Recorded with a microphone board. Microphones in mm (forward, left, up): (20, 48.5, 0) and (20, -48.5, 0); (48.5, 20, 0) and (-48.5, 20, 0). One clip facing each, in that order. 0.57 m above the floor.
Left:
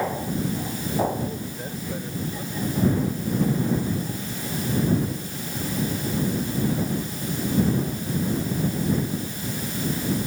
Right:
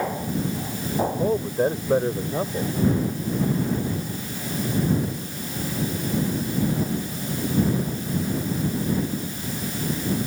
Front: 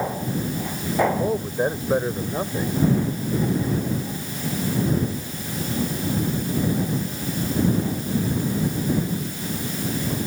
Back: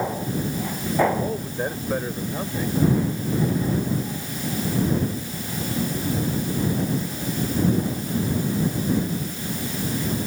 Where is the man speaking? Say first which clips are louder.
Right 9 dB, front 4 dB; 70° right.